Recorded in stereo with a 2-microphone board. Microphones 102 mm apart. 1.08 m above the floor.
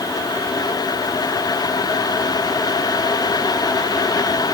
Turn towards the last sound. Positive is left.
No sound to turn to.